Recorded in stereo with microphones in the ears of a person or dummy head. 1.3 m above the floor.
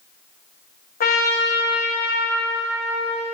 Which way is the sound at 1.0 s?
40° left (ahead or behind).